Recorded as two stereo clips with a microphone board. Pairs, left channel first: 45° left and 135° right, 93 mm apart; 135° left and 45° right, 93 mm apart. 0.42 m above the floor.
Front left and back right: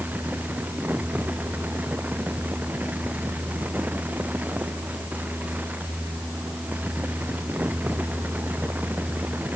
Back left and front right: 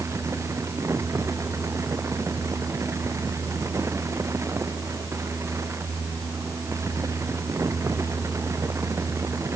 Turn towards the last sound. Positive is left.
No sound to turn to.